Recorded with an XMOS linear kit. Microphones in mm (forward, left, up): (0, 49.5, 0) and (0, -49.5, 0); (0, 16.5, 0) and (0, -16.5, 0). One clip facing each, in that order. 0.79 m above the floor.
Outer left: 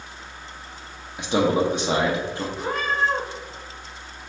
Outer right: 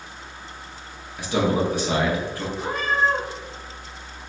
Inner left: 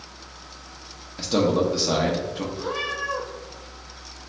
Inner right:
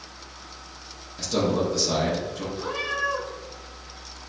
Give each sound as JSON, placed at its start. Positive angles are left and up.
{"t": 1.2, "sound": "a man speaking", "side_deg": 20, "distance_m": 0.6}
{"t": 2.6, "sound": "a cat meowing", "side_deg": -5, "distance_m": 1.7}